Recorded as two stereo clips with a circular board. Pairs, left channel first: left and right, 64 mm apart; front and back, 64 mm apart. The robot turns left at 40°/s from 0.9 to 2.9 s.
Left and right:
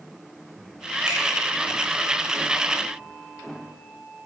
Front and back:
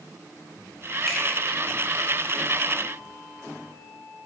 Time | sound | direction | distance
1.1 | a finger snap | 85° right | 1.4 m